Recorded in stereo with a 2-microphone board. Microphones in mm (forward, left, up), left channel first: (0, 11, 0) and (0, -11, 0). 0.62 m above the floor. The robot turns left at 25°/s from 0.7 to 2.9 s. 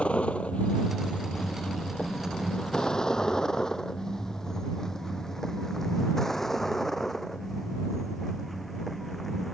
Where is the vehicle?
70° left (ahead or behind); by 9.5 s 5° left (ahead or behind).